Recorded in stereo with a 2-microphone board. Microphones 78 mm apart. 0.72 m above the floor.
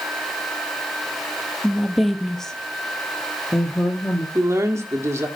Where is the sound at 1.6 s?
5° right (ahead or behind), 0.9 m; by 4.2 s 15° left (ahead or behind), 1.6 m.